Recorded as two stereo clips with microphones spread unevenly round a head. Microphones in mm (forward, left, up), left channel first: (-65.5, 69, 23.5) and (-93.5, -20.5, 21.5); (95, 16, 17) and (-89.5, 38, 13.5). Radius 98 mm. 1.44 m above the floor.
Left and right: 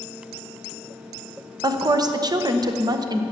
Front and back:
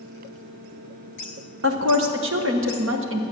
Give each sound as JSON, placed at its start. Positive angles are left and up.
{"t": 1.6, "sound": "a woman speaking", "azimuth_deg": -155, "distance_m": 1.2}